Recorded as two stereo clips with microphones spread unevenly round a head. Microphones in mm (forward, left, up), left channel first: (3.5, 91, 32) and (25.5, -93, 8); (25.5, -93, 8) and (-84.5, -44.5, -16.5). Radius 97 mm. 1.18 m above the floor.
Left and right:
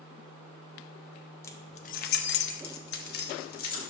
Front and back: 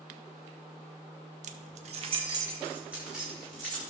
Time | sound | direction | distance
1.4 | keys jangling | 165° left | 0.6 m